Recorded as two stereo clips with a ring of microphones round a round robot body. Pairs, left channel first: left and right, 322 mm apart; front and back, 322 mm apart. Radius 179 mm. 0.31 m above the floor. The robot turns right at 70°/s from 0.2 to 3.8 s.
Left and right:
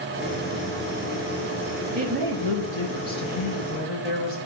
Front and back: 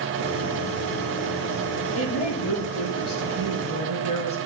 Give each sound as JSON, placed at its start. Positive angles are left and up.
{"t": 1.9, "sound": "a woman speaking", "azimuth_deg": -15, "distance_m": 4.5}